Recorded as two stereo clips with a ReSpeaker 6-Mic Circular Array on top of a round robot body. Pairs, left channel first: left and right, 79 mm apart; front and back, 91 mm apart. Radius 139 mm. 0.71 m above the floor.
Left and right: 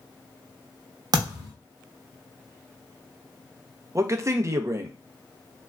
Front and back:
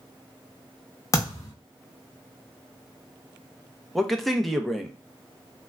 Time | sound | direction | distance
1.1 | a thud | 55° right | 0.7 m
4.0 | a man speaking | 90° right | 0.6 m